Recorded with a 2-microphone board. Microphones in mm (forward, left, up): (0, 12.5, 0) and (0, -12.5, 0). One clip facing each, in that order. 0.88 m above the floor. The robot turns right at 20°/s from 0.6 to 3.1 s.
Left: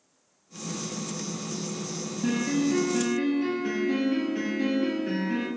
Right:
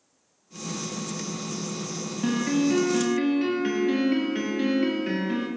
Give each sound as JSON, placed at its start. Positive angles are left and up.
{"t": 2.2, "sound": "a piano", "side_deg": -70, "distance_m": 0.6}